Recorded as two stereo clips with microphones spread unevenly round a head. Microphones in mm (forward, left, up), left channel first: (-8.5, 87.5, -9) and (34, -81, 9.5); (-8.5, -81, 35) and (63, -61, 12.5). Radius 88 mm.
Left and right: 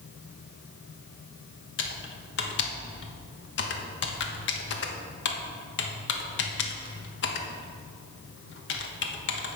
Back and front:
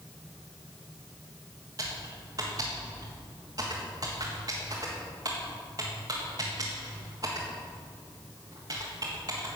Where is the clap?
No clap in this recording.